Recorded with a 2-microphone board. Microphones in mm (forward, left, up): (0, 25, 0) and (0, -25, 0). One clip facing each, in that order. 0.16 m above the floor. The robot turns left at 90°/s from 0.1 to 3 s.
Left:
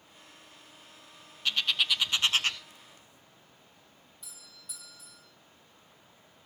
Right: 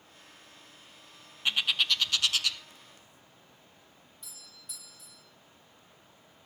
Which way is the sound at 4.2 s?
Centre (ahead or behind).